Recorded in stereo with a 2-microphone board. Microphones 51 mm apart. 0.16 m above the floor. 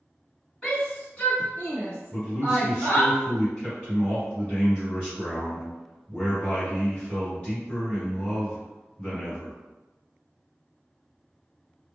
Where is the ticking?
I don't hear ticking.